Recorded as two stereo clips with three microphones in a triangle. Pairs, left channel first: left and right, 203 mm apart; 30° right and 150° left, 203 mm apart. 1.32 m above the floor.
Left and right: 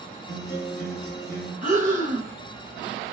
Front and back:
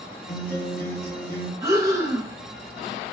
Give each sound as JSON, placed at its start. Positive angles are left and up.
{"t": 0.3, "sound": "a guitar", "azimuth_deg": 15, "distance_m": 2.0}
{"t": 1.6, "sound": "breathing", "azimuth_deg": -135, "distance_m": 0.9}